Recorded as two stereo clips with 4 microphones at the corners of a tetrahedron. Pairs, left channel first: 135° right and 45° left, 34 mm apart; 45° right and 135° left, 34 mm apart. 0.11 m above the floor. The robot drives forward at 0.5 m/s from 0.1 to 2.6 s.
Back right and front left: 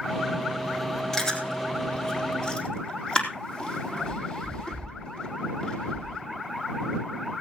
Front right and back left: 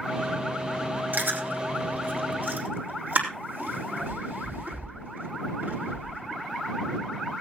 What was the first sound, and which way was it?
Chewing, 155° left.